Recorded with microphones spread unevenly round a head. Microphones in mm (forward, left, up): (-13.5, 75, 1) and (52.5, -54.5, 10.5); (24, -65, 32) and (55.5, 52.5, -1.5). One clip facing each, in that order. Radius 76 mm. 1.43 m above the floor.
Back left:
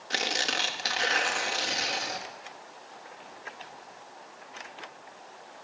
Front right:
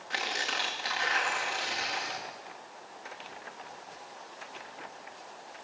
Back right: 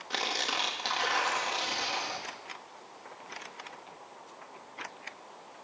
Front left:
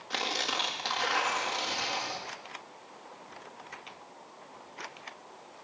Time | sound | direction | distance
0.1 | tearing paper | 170° left | 2.0 m